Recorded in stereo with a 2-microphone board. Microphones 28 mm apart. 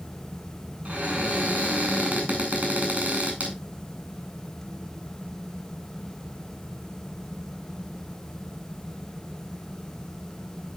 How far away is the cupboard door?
About 4.5 m.